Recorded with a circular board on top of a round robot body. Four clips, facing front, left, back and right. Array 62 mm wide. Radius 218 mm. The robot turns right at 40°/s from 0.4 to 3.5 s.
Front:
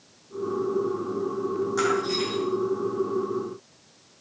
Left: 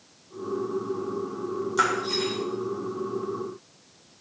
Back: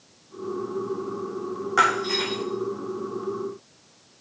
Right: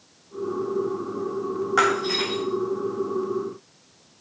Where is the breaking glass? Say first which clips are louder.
Right 3 dB, back 6 dB; 125° right, 8 m; by 2.4 s 100° right, 8 m.